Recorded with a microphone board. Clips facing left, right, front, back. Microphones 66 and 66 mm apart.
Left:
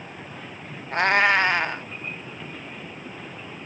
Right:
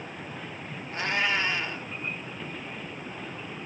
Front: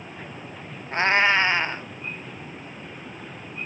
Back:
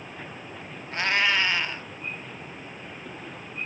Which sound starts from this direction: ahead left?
A cat meowing, at 0.9 s.